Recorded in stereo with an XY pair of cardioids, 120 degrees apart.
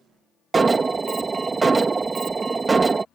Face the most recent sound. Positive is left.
turn(degrees=-25)